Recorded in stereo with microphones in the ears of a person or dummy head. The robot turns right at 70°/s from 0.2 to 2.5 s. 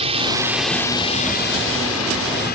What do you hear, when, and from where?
0.0 s a drone: 30° right (ahead or behind); by 2.5 s 50° left (ahead or behind)